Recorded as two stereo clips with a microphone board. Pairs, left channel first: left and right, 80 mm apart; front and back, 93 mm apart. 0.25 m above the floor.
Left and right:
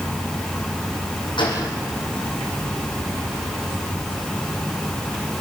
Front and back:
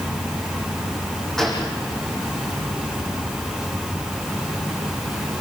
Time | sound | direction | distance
1.4 | a gunshot | 85° left | 7.5 m